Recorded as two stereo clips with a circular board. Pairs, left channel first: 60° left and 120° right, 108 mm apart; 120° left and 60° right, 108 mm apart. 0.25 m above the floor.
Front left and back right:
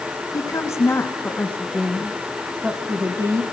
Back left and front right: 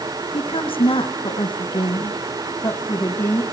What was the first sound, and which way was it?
A woman speaking, 110° left.